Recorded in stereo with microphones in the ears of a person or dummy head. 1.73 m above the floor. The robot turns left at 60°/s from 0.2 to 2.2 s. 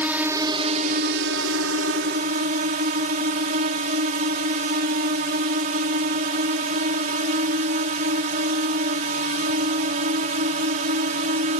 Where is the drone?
15° right; by 11.6 s 135° right.